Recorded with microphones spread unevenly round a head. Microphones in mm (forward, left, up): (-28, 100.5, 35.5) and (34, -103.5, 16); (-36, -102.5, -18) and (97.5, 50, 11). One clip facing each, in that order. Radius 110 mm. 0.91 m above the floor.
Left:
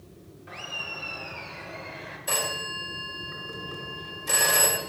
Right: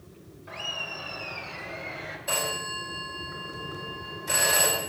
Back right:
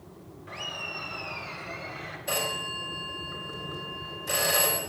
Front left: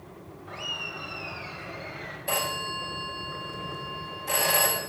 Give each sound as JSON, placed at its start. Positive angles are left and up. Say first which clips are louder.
{"t": 0.5, "sound": "laughter", "louder": "right 2 dB, back right 1 dB", "azimuth_deg": 175, "distance_m": 2.0}
{"t": 2.3, "sound": "a phone ringing", "louder": "even, front left 1 dB", "azimuth_deg": 150, "distance_m": 2.5}